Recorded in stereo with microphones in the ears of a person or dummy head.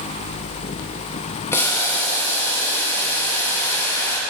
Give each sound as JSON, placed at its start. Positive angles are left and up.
{"t": 1.5, "sound": "boiling", "side_deg": 20, "distance_m": 1.9}